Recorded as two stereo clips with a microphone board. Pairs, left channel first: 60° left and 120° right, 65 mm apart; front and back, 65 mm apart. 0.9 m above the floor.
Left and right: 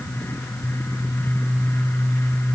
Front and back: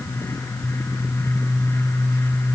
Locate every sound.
Only background noise.